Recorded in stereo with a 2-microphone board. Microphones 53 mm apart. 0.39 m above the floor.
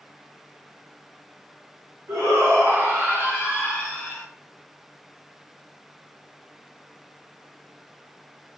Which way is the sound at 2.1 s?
65° right (ahead or behind).